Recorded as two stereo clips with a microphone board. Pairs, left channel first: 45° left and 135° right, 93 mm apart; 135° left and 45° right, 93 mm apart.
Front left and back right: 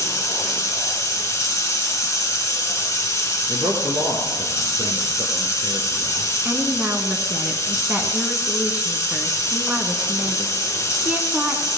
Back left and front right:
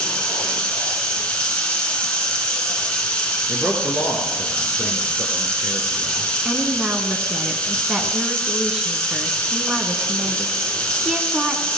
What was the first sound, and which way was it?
Running water, 65° left.